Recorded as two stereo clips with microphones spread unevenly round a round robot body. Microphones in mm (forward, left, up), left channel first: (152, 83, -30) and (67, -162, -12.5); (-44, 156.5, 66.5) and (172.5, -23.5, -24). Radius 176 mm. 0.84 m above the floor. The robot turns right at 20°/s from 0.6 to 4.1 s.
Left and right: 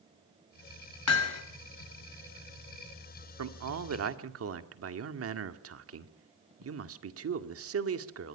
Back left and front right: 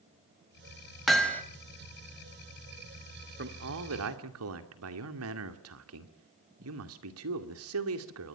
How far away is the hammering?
About 3 m.